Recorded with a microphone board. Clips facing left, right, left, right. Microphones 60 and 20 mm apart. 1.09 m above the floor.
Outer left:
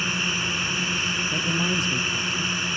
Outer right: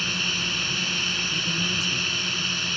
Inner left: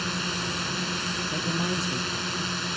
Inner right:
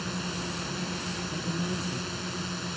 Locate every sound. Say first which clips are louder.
0.0 s a drone: outer left 2 dB, inner left 5 dB; 20° left (ahead or behind)
1.3 s a man speaking: outer left 3 dB, inner left 4 dB; 50° left (ahead or behind)